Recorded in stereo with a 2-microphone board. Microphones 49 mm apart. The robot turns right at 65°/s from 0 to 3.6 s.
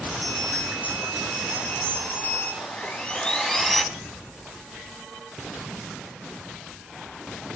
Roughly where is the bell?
Right.